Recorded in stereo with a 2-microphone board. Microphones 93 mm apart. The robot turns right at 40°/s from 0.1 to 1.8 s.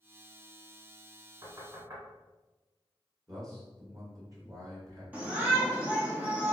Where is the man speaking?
35° right (ahead or behind), 1.4 m.